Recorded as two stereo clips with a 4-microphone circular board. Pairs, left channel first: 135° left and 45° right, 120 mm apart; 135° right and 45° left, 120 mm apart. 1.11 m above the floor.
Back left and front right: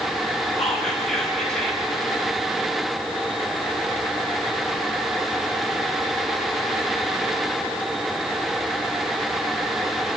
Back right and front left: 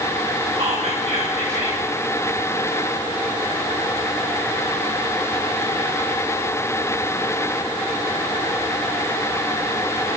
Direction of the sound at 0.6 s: 50° left.